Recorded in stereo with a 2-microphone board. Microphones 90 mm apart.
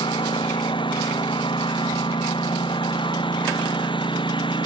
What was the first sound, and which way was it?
A lawn mower, 80° left.